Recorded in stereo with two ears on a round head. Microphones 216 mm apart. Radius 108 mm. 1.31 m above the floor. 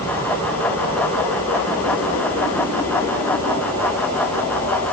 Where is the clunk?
No clunk in this recording.